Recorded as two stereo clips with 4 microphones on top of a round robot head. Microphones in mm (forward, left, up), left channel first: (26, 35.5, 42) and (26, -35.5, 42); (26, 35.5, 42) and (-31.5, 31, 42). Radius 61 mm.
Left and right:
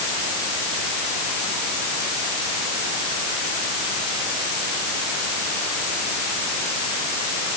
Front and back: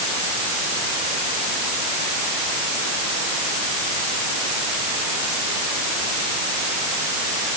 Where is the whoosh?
I don't hear a whoosh.